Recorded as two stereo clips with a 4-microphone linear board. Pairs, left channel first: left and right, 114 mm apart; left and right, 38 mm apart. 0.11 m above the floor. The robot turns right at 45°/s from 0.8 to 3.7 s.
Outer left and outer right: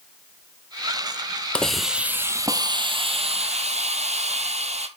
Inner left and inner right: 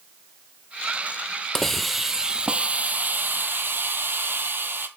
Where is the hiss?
170° left, 0.9 m; by 4.9 s 95° right, 0.9 m.